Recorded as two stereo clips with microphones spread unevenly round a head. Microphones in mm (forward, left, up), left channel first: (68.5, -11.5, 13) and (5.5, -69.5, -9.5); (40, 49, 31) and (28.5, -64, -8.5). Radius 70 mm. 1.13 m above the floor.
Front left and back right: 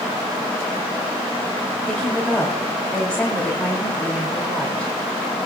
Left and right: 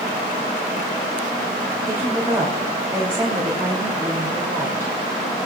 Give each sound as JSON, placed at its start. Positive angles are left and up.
{"t": 1.8, "sound": "a woman speaking", "azimuth_deg": -40, "distance_m": 3.0}